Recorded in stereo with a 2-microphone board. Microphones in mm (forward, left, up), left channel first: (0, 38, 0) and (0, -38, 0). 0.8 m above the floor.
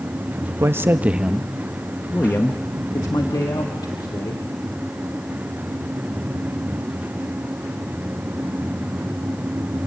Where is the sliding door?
No sliding door in this recording.